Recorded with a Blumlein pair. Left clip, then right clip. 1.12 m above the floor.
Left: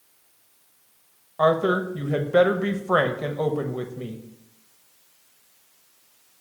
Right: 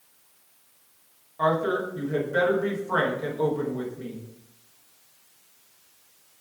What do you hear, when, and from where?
1.4 s a woman speaking: 25° left, 0.7 m